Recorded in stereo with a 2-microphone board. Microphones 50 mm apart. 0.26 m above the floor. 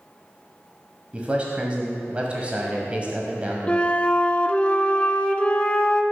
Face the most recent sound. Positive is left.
turn(degrees=25)  # may be behind; listen again after turning